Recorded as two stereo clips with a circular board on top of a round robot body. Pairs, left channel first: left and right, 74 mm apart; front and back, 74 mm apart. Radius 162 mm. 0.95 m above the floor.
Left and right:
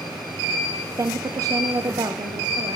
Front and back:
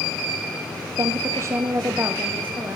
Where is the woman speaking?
140° right, 0.8 m; by 2.8 s 115° right, 1.8 m.